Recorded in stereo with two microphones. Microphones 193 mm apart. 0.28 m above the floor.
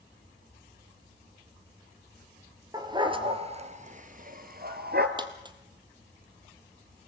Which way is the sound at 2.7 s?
20° right (ahead or behind).